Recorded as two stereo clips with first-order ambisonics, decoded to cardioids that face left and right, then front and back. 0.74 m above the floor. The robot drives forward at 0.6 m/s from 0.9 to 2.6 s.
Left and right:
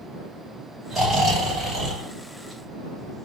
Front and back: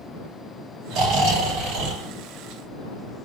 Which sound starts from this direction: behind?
Snoring, at 0.9 s.